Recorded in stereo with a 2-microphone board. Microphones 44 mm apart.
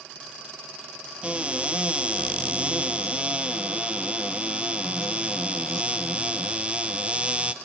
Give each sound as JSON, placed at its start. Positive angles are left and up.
{"t": 1.2, "sound": "a cupboard door", "side_deg": -30, "distance_m": 0.9}